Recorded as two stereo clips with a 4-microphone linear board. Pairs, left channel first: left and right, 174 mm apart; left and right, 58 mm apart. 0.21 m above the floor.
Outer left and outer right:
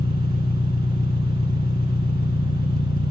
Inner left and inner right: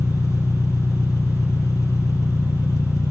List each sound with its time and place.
0.0 s an engine running: 65° left (ahead or behind), 1.4 m